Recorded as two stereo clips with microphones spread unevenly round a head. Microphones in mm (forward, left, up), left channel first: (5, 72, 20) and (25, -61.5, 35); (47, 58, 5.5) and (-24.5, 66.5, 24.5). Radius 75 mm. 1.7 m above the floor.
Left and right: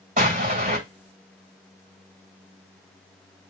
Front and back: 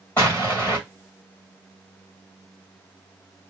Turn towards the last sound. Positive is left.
turn(degrees=-90)